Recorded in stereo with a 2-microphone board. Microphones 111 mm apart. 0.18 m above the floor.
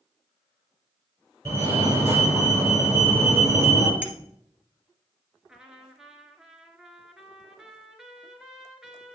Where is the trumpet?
5° right (ahead or behind), 1.3 m.